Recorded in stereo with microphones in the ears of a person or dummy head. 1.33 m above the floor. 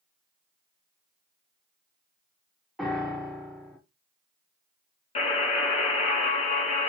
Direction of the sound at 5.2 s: 30° left (ahead or behind).